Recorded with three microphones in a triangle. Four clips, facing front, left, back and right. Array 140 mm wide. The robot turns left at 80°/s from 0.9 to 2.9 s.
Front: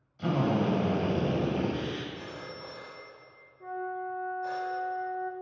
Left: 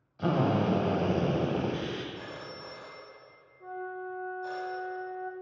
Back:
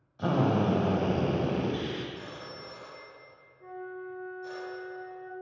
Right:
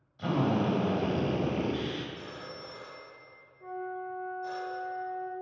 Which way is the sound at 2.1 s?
90° left.